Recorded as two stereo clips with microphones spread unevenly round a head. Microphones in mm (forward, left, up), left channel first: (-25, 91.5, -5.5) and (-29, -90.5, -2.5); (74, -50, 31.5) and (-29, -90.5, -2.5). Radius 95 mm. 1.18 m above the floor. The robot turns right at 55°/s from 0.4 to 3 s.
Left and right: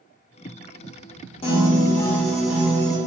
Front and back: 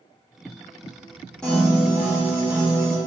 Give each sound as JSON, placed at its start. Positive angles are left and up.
{"t": 1.4, "sound": "a piano", "azimuth_deg": 125, "distance_m": 0.6}